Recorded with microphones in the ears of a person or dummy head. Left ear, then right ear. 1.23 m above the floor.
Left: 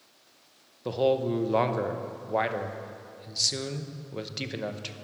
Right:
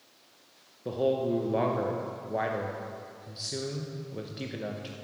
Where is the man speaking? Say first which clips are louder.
Left 2 dB; 30° left (ahead or behind), 0.8 m.